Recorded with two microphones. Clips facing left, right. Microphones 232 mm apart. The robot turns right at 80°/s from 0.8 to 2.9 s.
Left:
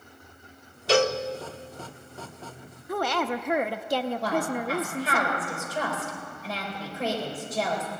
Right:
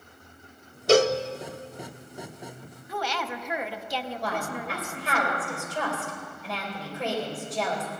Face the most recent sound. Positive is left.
turn(degrees=0)  # may be behind; listen again after turning